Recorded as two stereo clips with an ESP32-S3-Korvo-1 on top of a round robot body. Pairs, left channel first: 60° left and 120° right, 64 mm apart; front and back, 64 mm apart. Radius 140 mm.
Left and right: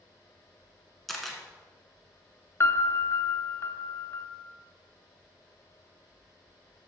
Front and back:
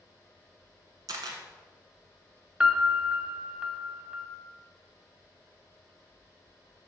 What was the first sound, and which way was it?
A camera shutter, 150° left.